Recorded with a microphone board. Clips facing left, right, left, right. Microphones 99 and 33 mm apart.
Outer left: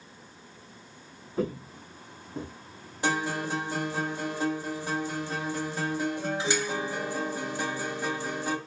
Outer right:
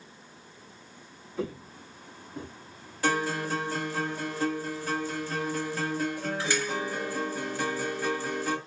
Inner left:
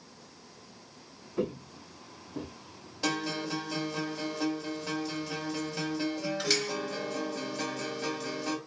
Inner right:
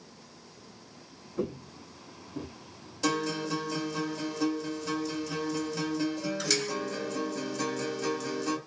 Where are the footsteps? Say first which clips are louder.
Outer left 4 dB, inner left 1 dB; 40° left (ahead or behind), 0.7 m; by 2.5 s 35° left (ahead or behind), 1.1 m.